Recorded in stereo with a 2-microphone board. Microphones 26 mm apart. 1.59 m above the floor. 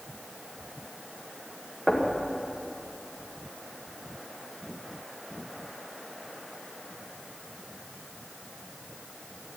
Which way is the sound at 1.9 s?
15° right (ahead or behind).